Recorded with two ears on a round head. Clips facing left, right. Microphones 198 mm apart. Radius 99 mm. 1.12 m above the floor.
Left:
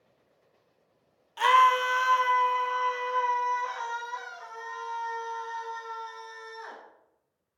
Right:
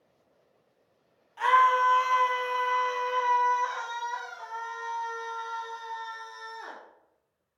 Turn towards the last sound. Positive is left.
turn(degrees=-75)  # may be behind; listen again after turning